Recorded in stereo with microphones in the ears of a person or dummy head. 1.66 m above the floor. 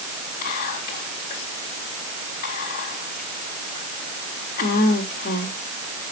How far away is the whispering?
About 2 m.